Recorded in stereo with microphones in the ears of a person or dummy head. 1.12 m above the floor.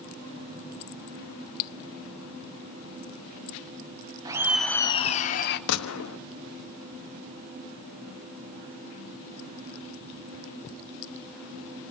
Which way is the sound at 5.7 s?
80° left.